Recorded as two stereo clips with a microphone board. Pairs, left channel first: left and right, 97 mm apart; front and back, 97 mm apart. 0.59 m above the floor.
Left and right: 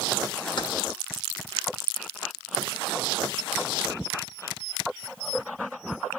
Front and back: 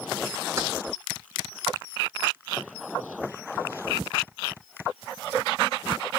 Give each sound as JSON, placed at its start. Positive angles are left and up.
{"t": 0.6, "sound": "keys jangling", "azimuth_deg": 120, "distance_m": 1.1}